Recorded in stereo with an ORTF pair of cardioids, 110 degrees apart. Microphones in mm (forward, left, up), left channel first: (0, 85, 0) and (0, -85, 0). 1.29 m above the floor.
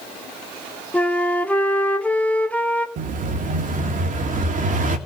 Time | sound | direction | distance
0.9 | a flute | 10° left | 1.6 m
3.0 | an explosion | 55° right | 2.5 m